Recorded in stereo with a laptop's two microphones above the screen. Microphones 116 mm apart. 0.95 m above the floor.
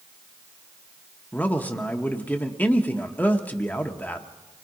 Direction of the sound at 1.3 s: 15° left (ahead or behind).